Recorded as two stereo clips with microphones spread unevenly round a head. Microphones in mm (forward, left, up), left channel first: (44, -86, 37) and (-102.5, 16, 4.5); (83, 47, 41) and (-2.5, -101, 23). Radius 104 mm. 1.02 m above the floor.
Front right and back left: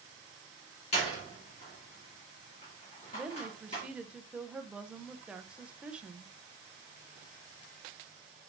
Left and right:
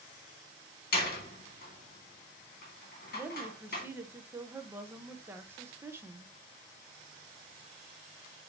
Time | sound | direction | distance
0.9 | a door slam | 25° left | 2.0 m
3.1 | a woman speaking | 165° right | 0.6 m